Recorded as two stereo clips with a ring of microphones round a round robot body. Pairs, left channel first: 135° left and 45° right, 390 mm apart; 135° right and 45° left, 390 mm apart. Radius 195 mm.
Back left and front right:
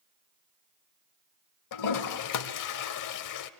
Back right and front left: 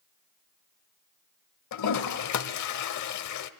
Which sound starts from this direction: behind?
A toilet flushing, at 1.7 s.